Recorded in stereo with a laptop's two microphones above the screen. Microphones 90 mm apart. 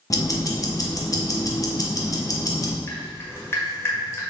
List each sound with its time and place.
0.1 s ticking: 40° left (ahead or behind), 0.6 m
2.9 s dripping: 30° left (ahead or behind), 1.4 m